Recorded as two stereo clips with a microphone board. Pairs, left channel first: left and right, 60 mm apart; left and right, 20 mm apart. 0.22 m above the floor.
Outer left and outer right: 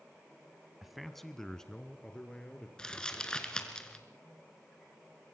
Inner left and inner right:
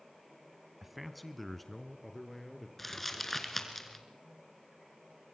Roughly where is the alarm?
No alarm in this recording.